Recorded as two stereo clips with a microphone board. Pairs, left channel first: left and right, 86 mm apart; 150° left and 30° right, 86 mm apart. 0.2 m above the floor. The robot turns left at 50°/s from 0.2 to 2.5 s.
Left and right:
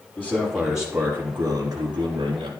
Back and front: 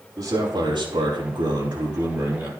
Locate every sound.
0.2 s a man speaking: 20° left, 6 m; by 2.5 s 95° right, 6 m